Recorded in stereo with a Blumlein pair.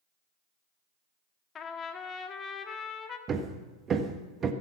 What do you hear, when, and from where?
1.6 s a trumpet: 25° left, 1.5 m
3.3 s hammering: 25° right, 1.5 m